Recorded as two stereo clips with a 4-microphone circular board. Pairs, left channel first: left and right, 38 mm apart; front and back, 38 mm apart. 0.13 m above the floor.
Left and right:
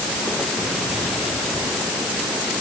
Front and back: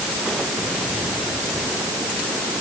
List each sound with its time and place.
Only background noise.